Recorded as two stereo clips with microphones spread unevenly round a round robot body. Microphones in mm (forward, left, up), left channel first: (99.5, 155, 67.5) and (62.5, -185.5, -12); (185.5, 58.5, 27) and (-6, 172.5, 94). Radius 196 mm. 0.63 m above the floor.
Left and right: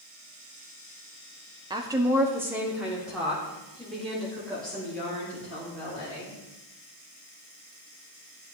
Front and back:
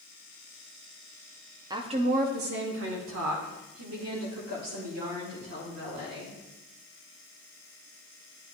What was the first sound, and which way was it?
A woman speaking, 125° right.